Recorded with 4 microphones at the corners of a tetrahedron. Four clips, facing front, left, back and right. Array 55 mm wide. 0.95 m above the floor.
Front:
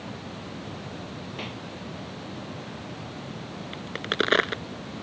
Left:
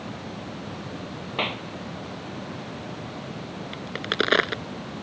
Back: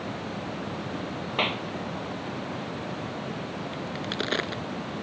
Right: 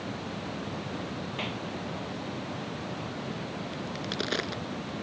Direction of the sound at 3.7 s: 55° left.